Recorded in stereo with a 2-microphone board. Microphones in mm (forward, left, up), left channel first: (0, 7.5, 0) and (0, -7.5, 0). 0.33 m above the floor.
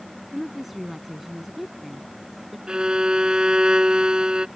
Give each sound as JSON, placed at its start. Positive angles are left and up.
{"t": 0.3, "sound": "a woman speaking", "side_deg": -5}
{"t": 2.7, "sound": "a violin", "side_deg": -65}